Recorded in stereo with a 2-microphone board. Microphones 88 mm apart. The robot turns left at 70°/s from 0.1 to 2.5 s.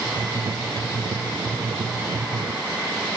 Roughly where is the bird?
No bird in this recording.